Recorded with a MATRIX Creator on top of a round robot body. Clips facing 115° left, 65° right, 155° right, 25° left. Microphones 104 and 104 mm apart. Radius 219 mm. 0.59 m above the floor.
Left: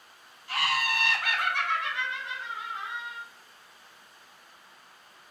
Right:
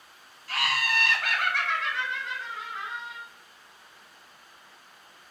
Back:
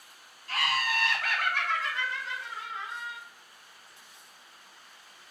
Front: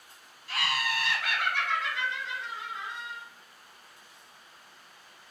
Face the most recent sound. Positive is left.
turn(degrees=180)